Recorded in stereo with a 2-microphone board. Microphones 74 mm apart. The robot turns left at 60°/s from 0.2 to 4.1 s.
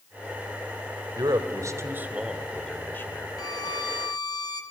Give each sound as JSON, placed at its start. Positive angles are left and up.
{"t": 1.2, "sound": "a man speaking", "side_deg": -70, "distance_m": 1.8}
{"t": 3.4, "sound": "a violin", "azimuth_deg": 120, "distance_m": 2.0}